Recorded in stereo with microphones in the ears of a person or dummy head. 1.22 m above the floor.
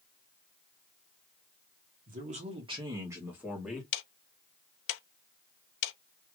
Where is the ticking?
70° left (ahead or behind), 0.6 m.